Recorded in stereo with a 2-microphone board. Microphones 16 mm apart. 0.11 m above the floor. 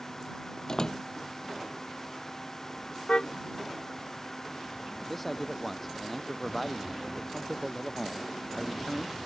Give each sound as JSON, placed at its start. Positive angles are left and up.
{"t": 0.7, "sound": "a door slam", "side_deg": 40}
{"t": 3.1, "sound": "a car horn", "side_deg": 85}
{"t": 5.1, "sound": "a man speaking", "side_deg": 5}